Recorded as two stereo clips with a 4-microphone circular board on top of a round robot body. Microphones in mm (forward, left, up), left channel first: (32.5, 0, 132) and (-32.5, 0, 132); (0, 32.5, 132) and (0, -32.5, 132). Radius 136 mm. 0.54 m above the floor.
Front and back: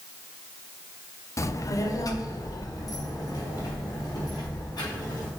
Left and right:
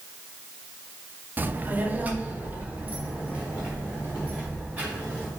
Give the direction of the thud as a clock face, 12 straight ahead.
No thud in this recording.